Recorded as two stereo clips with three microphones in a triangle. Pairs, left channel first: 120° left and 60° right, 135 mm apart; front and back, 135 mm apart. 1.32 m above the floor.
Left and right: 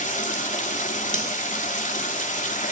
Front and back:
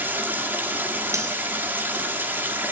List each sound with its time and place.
0.0 s running water: 105° left, 3 m
1.1 s cutlery clinking: 115° left, 4.5 m